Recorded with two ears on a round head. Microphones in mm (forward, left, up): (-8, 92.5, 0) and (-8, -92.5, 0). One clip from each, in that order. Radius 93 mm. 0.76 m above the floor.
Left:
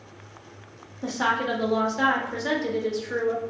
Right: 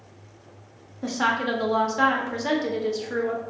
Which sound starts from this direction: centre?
A woman speaking, at 1.0 s.